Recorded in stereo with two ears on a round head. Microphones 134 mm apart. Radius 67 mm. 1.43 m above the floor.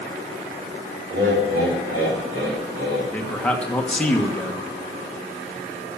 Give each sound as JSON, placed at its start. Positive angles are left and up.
{"t": 1.1, "sound": "laughter", "side_deg": -80, "distance_m": 4.0}
{"t": 3.1, "sound": "a man speaking", "side_deg": 10, "distance_m": 1.5}